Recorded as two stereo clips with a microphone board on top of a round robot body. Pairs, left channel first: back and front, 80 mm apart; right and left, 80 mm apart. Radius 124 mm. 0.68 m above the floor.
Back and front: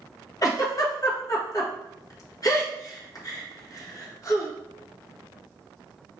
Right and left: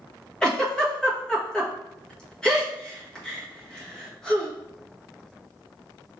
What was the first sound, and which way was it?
A giggle, 165° right.